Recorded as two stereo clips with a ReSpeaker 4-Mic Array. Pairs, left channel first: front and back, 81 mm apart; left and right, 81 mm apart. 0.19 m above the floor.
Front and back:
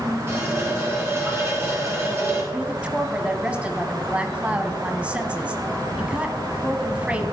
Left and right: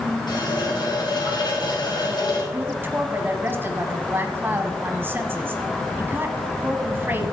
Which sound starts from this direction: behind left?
A running tap, at 0.3 s.